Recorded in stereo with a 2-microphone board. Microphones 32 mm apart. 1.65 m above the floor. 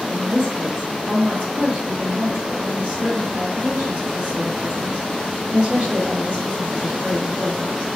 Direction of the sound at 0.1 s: 55° right (ahead or behind).